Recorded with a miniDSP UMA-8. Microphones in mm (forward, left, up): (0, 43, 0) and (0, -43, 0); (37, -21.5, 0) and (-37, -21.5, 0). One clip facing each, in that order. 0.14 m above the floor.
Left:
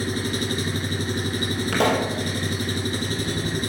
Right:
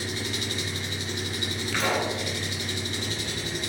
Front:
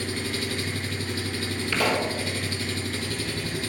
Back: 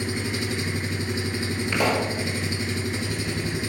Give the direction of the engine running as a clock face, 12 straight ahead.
8 o'clock.